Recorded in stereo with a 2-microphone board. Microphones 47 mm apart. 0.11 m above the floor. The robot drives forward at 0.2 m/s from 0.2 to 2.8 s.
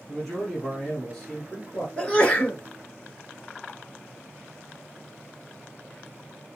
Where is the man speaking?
10° left (ahead or behind), 1.6 m.